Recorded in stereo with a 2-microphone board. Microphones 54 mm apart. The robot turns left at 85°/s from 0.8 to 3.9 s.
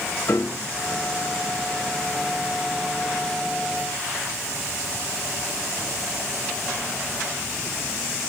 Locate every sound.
0.3 s a piano: 45° left (ahead or behind), 1.4 m